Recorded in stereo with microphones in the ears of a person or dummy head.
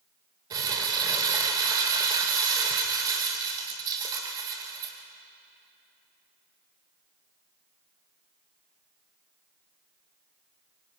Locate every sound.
0.5 s crumpling: 20° right (ahead or behind), 2.5 m